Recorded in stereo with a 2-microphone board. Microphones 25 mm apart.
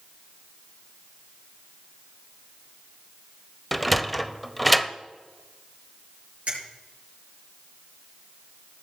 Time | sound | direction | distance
3.7 | a sliding door | centre (ahead or behind) | 0.6 m
6.5 | a finger snap | 70° right (ahead or behind) | 6.5 m